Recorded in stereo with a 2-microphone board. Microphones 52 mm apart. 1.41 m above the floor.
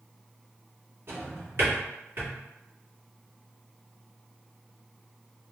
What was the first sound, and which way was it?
A drawer, 55° right (ahead or behind).